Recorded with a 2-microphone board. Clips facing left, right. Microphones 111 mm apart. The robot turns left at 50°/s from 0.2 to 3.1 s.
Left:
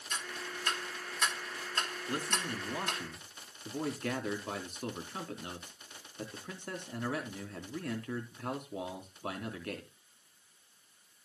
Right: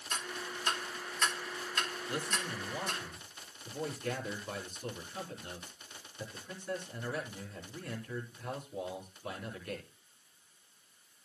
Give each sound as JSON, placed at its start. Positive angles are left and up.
{"t": 0.1, "sound": "ticking", "side_deg": -45, "distance_m": 2.5}
{"t": 2.1, "sound": "a man speaking", "azimuth_deg": 145, "distance_m": 3.0}